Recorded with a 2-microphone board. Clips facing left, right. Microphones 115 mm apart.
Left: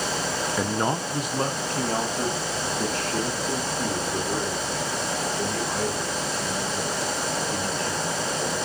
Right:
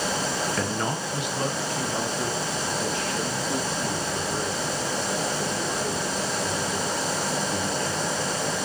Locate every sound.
0.6 s a man speaking: 10° left (ahead or behind), 0.5 m; by 8.6 s 60° left (ahead or behind), 8 m